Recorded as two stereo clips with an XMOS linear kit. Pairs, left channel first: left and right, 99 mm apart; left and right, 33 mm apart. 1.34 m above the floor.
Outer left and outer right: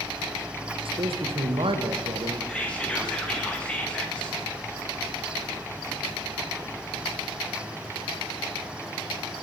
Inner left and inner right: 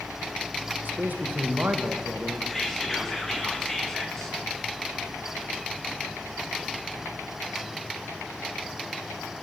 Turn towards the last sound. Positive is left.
turn(degrees=10)  # may be behind; listen again after turning